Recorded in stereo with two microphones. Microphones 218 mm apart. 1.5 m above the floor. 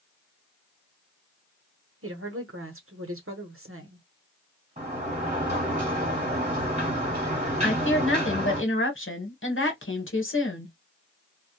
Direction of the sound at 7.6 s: 70° left (ahead or behind).